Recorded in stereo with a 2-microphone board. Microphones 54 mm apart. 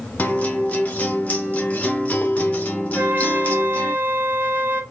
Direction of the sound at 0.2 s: 30° left (ahead or behind).